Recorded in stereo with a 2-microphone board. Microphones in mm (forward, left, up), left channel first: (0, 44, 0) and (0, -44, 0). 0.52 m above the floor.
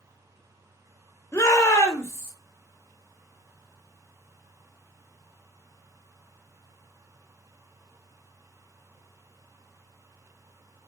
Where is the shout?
30° left (ahead or behind), 0.8 m; by 2.3 s 20° left (ahead or behind), 0.8 m.